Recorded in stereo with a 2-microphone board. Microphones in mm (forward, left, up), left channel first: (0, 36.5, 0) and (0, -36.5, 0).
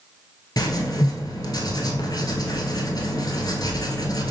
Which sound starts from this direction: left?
Writing, at 0.6 s.